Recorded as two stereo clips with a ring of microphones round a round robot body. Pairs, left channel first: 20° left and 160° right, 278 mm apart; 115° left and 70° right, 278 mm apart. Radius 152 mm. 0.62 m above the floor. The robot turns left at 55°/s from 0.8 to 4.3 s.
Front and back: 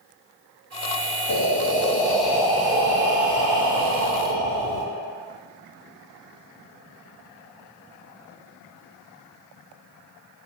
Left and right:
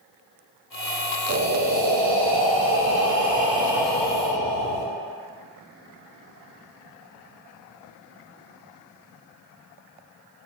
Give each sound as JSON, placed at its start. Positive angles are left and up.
{"t": 1.3, "sound": "breathing", "azimuth_deg": -15, "distance_m": 0.6}